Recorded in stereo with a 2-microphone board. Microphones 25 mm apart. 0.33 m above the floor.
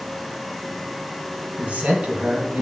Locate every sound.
1.6 s a man speaking: 65° right (ahead or behind), 3 m